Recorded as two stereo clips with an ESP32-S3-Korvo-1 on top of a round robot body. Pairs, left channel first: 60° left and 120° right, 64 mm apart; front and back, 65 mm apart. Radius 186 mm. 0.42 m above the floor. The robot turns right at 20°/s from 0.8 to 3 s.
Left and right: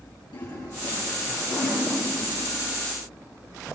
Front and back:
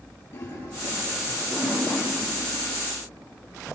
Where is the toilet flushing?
60° left, 9 m; by 2.5 s 95° left, 9 m.